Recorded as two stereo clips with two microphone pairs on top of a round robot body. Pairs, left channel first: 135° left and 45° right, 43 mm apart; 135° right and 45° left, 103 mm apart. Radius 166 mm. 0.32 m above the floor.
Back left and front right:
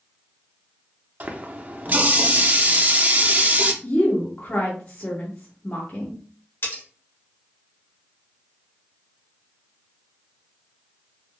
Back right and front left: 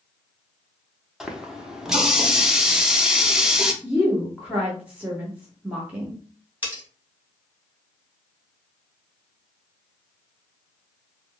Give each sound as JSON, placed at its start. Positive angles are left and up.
{"t": 1.2, "sound": "a running tap", "azimuth_deg": -20, "distance_m": 0.9}
{"t": 3.8, "sound": "a woman speaking", "azimuth_deg": 110, "distance_m": 1.3}
{"t": 6.6, "sound": "cutlery clinking", "azimuth_deg": 115, "distance_m": 2.0}